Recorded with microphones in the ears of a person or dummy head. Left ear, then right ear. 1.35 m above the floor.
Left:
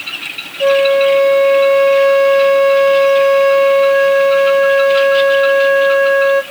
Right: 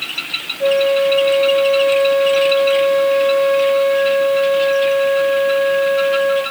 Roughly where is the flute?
Left.